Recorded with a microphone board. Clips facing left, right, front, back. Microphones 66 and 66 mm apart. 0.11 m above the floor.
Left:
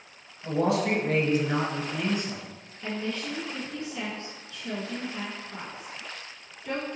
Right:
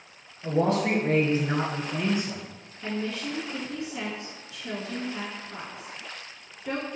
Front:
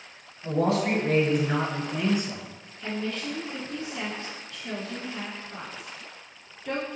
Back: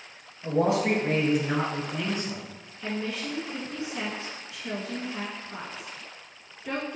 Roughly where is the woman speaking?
Behind right.